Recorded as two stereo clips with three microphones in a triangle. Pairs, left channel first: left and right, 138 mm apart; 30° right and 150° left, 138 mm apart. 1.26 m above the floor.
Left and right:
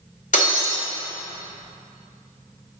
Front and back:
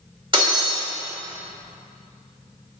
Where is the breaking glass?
100° left, 1.9 m.